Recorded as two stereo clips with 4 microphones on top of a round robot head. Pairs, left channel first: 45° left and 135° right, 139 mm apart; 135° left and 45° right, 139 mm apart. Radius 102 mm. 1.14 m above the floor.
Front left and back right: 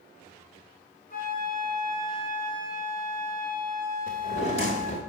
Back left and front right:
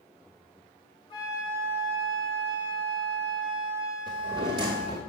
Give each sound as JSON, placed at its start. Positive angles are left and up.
{"t": 1.1, "sound": "a flute", "azimuth_deg": 75, "distance_m": 3.0}
{"t": 4.1, "sound": "a drawer", "azimuth_deg": 10, "distance_m": 1.2}